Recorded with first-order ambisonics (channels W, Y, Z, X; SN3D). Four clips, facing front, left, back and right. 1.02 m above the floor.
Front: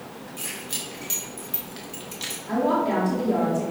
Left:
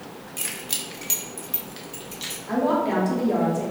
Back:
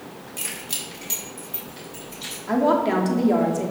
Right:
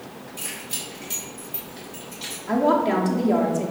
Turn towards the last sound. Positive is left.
turn(degrees=-155)